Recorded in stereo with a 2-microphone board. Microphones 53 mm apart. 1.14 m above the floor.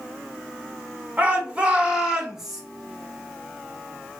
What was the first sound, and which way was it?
A shout, 25° right (ahead or behind).